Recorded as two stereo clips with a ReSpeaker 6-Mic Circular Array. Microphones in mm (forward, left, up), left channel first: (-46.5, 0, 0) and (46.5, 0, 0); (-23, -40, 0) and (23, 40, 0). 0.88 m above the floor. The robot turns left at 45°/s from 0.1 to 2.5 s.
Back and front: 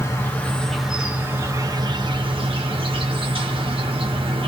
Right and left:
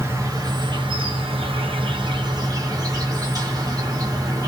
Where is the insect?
120° left, 0.9 m; by 4.5 s 15° left, 0.9 m.